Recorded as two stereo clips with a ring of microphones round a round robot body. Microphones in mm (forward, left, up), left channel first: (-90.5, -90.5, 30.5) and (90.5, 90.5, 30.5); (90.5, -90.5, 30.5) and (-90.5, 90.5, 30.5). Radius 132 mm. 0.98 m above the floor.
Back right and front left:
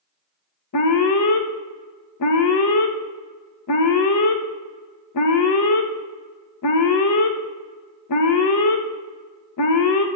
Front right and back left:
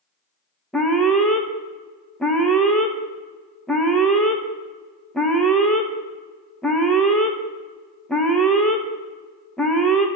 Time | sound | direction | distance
0.7 | an alarm | 135° right | 1.0 m